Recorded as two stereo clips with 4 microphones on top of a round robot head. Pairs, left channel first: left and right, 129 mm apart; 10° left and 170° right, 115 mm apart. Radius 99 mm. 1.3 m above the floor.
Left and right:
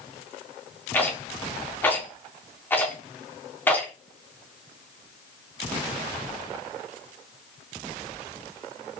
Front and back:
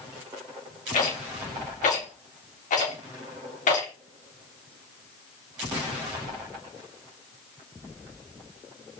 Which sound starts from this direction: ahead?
A rattle, at 0.9 s.